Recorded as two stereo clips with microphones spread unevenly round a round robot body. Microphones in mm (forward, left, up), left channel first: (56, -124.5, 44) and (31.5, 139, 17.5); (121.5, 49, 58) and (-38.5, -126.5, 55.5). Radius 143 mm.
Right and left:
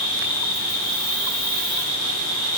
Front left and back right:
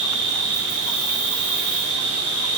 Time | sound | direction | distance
0.0 | an insect | 65° left | 1.5 m